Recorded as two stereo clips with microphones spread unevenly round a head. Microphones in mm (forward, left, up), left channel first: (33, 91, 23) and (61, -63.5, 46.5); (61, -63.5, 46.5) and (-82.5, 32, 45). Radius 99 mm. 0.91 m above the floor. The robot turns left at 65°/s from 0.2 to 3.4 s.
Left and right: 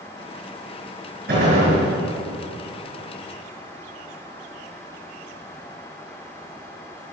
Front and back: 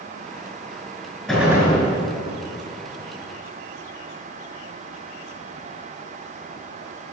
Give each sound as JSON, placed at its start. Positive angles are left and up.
{"t": 1.3, "sound": "a gunshot", "azimuth_deg": -120, "distance_m": 5.0}